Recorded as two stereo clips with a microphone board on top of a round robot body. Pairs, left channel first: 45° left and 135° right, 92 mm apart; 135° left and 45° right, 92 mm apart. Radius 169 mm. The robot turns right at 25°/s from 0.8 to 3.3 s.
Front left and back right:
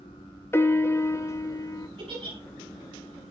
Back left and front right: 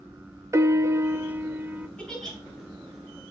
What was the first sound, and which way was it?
A piano, 5° right.